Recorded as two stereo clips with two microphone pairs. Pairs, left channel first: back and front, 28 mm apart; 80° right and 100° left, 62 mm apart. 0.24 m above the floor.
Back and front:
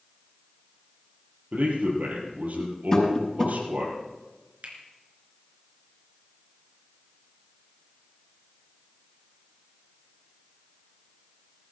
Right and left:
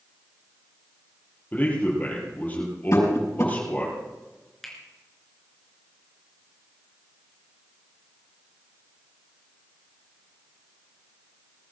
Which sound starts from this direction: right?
Tapping, at 2.9 s.